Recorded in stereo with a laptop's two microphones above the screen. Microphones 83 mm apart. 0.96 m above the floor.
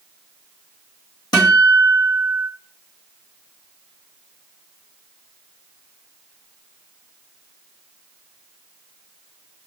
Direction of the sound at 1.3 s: 50° left (ahead or behind).